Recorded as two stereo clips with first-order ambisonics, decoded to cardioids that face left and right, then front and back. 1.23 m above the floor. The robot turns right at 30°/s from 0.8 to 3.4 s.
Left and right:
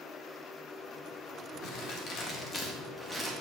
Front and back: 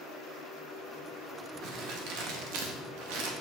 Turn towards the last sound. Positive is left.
turn(degrees=-170)